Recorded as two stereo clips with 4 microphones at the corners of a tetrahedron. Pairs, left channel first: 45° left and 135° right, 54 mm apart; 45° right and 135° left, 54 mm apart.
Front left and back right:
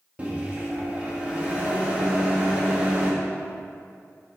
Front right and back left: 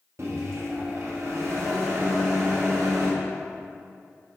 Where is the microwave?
160° left, 1.2 m.